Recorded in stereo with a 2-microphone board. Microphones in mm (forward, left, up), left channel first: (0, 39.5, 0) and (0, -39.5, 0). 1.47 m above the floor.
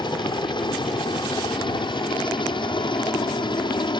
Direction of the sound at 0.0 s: 70° left (ahead or behind).